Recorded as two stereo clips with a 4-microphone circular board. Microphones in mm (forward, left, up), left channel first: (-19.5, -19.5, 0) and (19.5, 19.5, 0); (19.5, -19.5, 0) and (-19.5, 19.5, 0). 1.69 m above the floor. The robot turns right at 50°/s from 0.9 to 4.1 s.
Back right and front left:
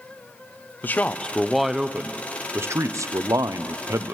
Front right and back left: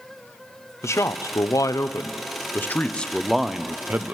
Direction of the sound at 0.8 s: 80° right.